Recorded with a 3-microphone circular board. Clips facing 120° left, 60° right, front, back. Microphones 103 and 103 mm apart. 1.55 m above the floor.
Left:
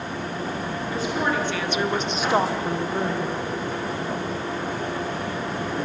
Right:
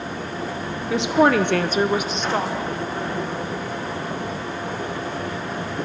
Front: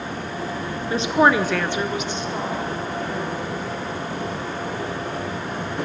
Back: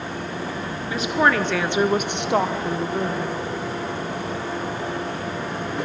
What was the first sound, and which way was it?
A woman speaking, 60° right.